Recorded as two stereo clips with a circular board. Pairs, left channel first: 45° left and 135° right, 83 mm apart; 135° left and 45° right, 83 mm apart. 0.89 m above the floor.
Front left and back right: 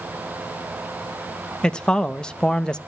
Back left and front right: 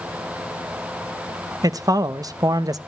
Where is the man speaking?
30° right, 0.7 m.